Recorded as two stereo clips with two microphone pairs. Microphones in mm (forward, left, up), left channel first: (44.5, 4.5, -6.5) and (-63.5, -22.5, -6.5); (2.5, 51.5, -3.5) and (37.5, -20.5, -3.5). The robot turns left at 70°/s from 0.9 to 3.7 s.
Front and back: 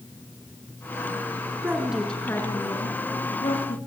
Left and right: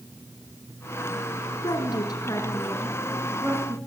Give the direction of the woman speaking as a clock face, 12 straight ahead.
8 o'clock.